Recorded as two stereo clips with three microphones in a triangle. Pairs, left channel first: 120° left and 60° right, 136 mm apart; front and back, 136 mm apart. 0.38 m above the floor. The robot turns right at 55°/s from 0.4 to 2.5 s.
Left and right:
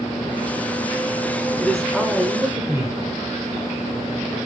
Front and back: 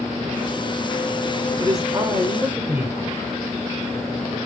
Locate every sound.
1.6 s a man speaking: 165° right, 1.4 m; by 3.0 s 115° right, 1.4 m